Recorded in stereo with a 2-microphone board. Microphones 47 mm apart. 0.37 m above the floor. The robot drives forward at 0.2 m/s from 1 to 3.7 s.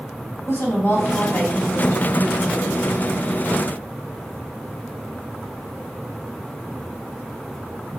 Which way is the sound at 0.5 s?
55° left (ahead or behind).